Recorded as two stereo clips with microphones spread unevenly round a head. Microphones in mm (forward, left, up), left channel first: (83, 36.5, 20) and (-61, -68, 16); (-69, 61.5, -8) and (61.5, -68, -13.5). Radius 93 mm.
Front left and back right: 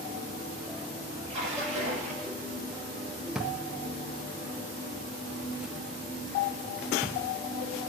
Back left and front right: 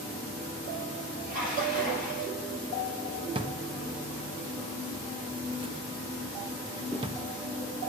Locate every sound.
1.3 s a splash: 90° right, 6 m
3.4 s a drawer: 60° right, 0.8 m